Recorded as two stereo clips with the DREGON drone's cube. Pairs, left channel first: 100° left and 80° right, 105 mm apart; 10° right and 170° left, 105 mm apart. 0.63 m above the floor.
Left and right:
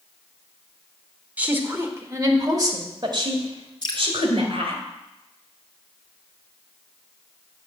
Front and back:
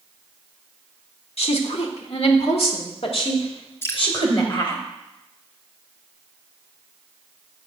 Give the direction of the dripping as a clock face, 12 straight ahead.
10 o'clock.